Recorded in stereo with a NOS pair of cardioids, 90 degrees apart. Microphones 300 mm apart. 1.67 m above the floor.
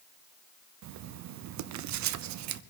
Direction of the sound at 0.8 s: 65° right.